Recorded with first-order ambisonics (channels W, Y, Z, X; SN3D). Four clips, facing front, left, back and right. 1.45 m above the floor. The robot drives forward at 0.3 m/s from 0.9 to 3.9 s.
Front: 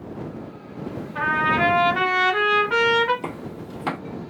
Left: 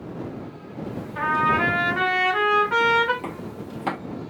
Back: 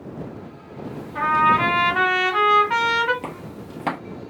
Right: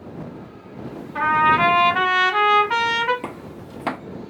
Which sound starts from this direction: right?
A trumpet, at 1.1 s.